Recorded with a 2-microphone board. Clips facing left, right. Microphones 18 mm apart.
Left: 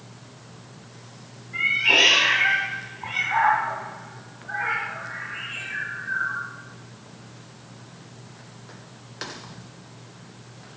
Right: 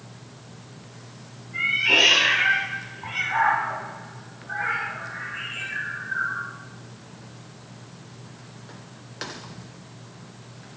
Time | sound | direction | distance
1.5 | a cat meowing | 35° left (ahead or behind) | 2 m